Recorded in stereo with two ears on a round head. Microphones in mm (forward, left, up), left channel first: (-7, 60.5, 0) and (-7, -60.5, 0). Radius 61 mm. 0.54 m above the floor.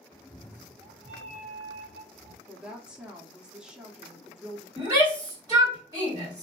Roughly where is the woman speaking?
Centre.